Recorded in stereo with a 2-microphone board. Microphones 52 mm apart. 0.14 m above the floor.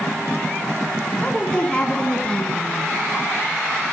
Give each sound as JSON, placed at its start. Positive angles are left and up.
{"t": 1.2, "sound": "a woman speaking", "side_deg": 20, "distance_m": 1.1}